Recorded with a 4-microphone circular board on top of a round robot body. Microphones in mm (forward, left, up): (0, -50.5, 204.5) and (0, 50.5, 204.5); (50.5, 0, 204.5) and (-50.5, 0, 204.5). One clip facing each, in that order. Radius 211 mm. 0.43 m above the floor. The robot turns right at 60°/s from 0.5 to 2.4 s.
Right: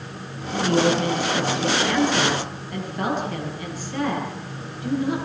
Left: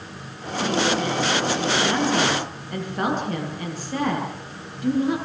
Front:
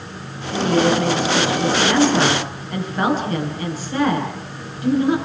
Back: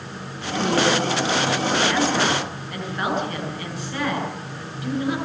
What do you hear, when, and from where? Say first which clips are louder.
0.5 s a woman speaking: right 3 dB, front 3 dB; 55° right, 9.5 m; by 5.2 s 55° left, 9.5 m